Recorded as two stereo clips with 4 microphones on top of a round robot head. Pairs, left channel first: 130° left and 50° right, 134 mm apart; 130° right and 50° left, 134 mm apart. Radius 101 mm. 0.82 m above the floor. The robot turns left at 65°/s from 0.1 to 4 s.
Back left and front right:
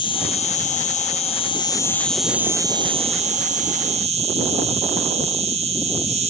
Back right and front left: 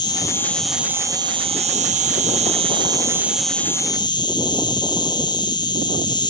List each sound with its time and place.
0.0 s an insect: 175° left, 0.8 m; by 6.3 s 75° right, 0.8 m